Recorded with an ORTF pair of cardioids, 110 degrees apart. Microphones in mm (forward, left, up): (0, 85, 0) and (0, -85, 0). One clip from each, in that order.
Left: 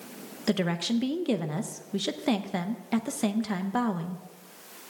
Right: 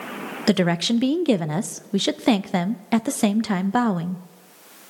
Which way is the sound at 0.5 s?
35° right.